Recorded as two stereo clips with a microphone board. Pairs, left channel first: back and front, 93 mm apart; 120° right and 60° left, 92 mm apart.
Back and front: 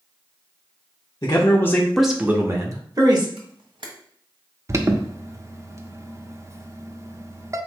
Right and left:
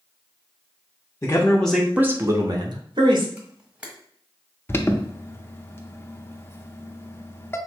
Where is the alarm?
55° right, 0.6 m.